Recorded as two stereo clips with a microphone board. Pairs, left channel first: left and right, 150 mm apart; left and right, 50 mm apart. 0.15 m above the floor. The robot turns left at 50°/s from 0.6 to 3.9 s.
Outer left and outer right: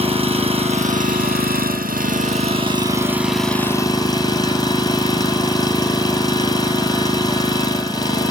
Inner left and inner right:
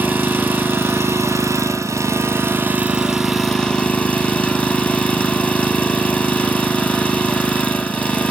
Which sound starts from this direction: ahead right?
An engine running, at 0.0 s.